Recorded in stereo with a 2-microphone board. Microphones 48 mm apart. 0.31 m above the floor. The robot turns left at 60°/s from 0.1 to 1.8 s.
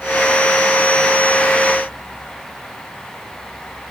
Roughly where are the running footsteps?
I don't hear running footsteps.